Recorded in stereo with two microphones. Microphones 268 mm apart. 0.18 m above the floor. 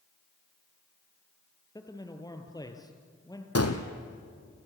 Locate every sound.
1.8 s a man speaking: 15° left (ahead or behind), 3 m
3.5 s a gunshot: 65° left (ahead or behind), 2 m